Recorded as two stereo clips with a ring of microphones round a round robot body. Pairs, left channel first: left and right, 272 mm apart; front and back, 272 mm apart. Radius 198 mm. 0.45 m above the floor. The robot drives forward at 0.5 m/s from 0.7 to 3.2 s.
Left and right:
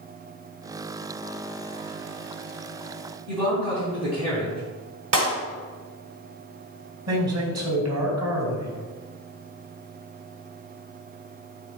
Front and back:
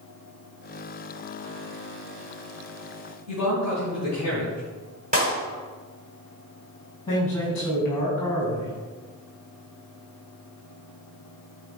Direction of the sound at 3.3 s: 105° right.